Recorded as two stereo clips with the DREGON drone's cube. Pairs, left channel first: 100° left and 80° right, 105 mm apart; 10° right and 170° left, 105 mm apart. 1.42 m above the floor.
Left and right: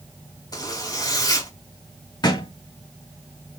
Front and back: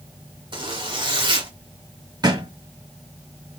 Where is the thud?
130° left, 2.0 m.